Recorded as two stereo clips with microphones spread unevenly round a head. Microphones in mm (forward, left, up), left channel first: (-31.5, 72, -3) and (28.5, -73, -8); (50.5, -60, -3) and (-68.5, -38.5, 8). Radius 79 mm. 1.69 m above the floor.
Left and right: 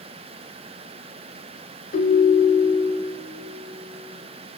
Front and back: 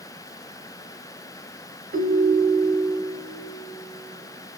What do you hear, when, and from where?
1.9 s a ringtone: 150° left, 4 m